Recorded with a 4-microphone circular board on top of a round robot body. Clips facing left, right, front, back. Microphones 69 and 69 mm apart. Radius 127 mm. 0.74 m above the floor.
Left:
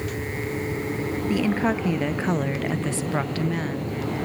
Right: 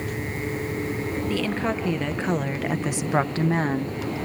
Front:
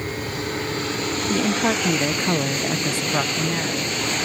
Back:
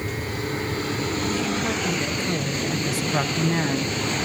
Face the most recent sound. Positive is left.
turn(degrees=-125)